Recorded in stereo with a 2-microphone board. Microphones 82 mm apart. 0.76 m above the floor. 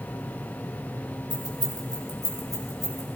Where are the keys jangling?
60° left (ahead or behind), 2.5 m; by 3.1 s 40° left (ahead or behind), 3 m.